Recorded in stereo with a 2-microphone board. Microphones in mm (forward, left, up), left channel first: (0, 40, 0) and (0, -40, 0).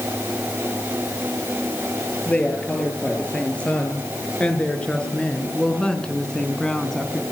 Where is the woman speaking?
15° left (ahead or behind), 9.5 m; by 7.2 s 5° left (ahead or behind), 3.5 m.